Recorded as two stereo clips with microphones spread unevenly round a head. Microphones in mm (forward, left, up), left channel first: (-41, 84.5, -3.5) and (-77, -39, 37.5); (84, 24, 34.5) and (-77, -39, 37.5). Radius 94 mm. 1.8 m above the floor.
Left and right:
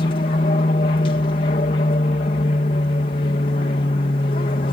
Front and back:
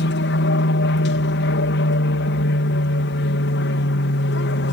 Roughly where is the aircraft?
Ahead left.